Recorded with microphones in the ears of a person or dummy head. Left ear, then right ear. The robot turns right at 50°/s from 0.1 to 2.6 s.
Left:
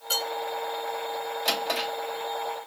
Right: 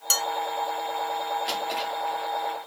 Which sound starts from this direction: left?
A drawer, at 1.4 s.